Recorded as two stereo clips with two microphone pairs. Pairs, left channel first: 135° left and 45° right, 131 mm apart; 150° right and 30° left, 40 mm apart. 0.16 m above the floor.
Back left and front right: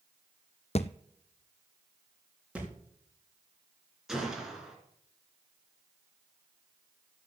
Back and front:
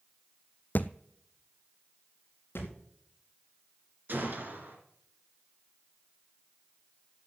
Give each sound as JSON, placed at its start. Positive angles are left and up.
{"t": 0.8, "sound": "a thud", "azimuth_deg": 165, "distance_m": 0.5}
{"t": 2.5, "sound": "a thud", "azimuth_deg": -125, "distance_m": 4.5}
{"t": 4.1, "sound": "a gunshot", "azimuth_deg": 40, "distance_m": 3.0}